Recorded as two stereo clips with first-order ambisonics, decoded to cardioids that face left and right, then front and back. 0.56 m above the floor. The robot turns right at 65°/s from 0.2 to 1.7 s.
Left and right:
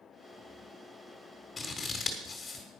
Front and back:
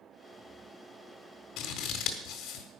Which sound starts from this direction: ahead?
Scissors, at 1.6 s.